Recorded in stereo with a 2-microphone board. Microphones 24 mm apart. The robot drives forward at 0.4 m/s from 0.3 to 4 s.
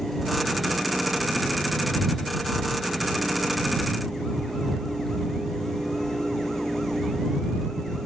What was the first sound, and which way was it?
Only background noise.